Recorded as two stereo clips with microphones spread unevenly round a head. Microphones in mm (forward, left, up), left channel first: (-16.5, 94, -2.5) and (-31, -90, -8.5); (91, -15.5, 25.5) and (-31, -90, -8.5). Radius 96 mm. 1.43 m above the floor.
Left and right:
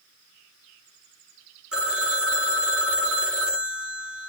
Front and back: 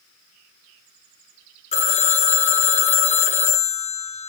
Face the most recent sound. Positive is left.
turn(degrees=-5)